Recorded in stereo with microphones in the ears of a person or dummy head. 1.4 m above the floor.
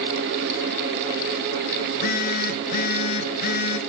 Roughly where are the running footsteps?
No running footsteps in this recording.